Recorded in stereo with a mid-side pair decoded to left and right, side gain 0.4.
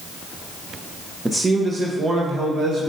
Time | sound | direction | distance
1.2 | a man speaking | 15° right | 0.8 m